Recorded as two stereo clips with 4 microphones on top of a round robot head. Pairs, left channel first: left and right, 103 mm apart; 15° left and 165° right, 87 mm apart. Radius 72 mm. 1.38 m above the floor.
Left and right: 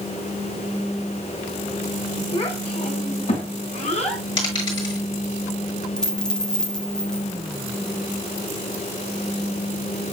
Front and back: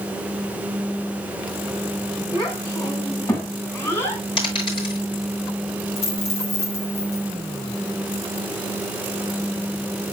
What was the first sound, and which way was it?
A child speaking, 60° left.